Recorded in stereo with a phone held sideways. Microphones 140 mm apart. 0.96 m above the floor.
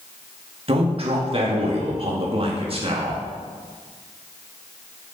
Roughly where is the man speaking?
Right.